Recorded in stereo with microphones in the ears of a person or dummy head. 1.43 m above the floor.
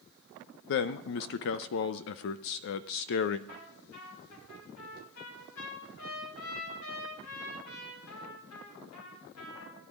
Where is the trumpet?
90° left, 4.5 m.